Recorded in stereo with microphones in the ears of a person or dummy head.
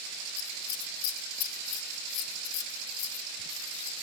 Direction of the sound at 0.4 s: 50° left (ahead or behind).